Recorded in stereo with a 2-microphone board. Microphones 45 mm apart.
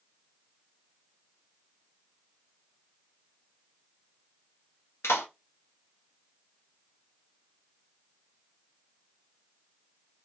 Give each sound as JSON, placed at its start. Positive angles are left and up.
{"t": 5.0, "sound": "a clap", "side_deg": 75, "distance_m": 1.4}